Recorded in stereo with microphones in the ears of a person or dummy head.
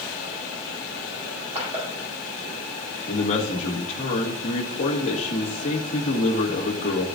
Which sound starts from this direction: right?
Crushing, at 1.3 s.